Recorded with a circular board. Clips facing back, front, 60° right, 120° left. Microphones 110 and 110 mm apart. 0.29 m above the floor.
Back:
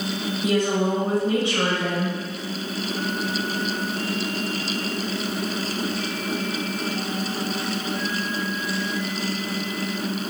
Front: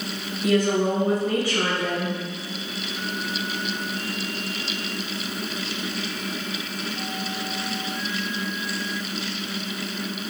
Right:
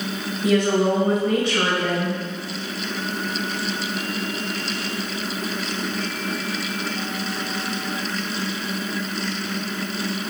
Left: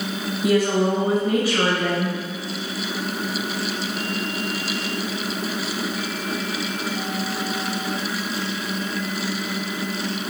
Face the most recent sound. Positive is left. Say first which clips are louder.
# front 2 dB, right 1 dB
turn(degrees=-165)